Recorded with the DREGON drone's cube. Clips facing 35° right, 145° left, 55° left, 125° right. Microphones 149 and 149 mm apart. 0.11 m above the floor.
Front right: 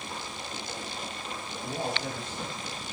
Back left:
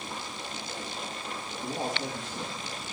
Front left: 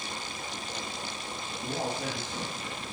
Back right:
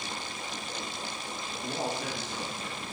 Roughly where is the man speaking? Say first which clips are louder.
Even, front left 1 dB; left.